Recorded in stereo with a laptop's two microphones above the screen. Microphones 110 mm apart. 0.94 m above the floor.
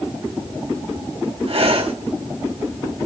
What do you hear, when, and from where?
1.5 s breathing: 60° right (ahead or behind), 1.8 m